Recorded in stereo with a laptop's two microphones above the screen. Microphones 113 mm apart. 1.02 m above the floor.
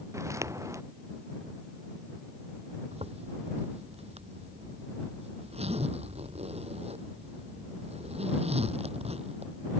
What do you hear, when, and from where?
0.1 s footsteps: 25° right (ahead or behind)
2.9 s a zipper: 65° right (ahead or behind)